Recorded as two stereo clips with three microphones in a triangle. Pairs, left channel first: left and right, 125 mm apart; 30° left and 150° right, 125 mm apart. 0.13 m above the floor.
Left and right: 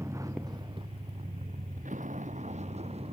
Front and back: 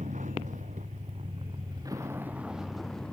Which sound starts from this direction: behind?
A vehicle, at 0.0 s.